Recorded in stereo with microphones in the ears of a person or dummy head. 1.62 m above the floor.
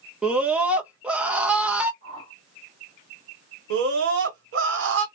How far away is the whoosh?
About 1.1 m.